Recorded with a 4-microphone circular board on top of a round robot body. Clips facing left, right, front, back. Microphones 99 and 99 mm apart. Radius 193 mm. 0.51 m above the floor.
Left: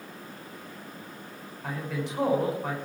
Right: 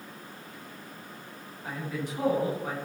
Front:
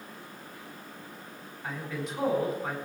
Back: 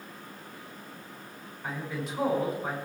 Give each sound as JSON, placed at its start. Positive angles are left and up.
{"t": 1.6, "sound": "a man speaking", "azimuth_deg": 90, "distance_m": 6.5}